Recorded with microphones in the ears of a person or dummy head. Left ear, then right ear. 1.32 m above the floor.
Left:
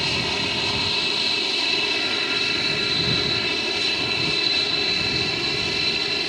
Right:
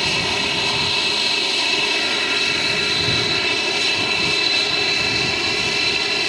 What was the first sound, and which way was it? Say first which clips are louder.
An aircraft: right 4 dB; 25° right (ahead or behind).